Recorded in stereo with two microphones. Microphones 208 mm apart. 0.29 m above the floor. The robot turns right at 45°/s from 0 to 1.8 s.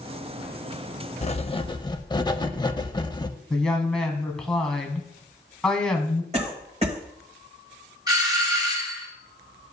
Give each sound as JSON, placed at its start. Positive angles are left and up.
{"t": 1.2, "sound": "writing", "side_deg": 35, "distance_m": 0.5}
{"t": 3.5, "sound": "a woman speaking", "side_deg": 5, "distance_m": 1.8}
{"t": 6.3, "sound": "a cough", "side_deg": -35, "distance_m": 1.8}
{"t": 8.1, "sound": "a doorbell", "side_deg": -20, "distance_m": 1.7}